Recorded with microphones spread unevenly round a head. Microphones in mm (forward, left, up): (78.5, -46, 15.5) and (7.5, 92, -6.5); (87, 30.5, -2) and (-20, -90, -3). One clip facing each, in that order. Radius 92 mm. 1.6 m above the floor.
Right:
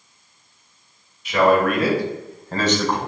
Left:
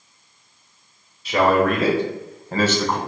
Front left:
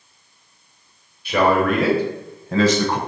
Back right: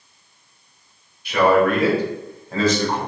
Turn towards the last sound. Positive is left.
turn(degrees=25)